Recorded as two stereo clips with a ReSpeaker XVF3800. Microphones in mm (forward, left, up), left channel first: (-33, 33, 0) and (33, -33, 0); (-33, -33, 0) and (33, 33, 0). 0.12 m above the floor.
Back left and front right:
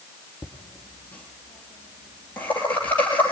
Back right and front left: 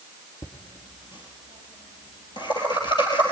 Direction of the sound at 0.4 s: 155° right.